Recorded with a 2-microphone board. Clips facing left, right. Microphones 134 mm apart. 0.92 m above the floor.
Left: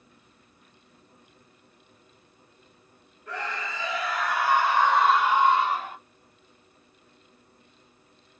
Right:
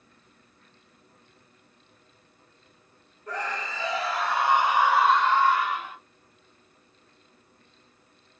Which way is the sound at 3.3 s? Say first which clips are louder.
Right 1 dB; 40° right (ahead or behind).